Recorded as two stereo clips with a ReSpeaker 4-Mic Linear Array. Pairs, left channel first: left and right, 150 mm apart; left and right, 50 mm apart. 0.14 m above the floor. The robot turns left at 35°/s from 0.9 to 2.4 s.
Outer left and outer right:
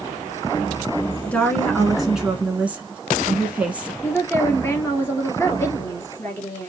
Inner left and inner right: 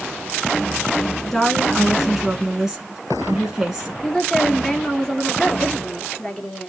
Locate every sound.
1.3 s a woman speaking: 20° left, 1.2 m; by 3.9 s 20° right, 1.2 m
4.0 s a woman speaking: 15° left (ahead or behind), 2.5 m